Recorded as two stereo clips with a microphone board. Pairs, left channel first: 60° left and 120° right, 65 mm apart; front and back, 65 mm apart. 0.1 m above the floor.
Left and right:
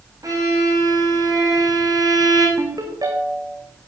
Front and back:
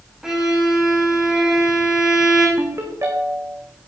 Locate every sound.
0.2 s a violin: 95° right, 5.5 m
2.6 s a ringtone: 135° right, 3 m